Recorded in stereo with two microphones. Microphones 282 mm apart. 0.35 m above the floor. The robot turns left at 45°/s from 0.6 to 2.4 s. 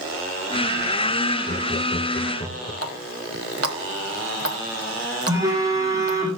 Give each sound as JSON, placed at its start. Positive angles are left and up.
{"t": 1.5, "sound": "laughter", "side_deg": 35, "distance_m": 1.1}
{"t": 2.8, "sound": "a running tap", "side_deg": -55, "distance_m": 1.3}
{"t": 5.3, "sound": "a phone buzzing", "side_deg": -10, "distance_m": 6.0}